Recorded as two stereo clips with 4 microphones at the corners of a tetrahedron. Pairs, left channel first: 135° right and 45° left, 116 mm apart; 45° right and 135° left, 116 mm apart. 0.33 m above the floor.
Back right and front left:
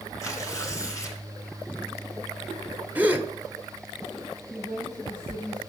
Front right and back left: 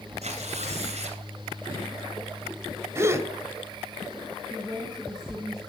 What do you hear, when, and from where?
0.2 s tearing paper: 160° left, 2 m
3.0 s a gasp: 100° left, 1.0 m
4.5 s a woman speaking: 130° right, 3.5 m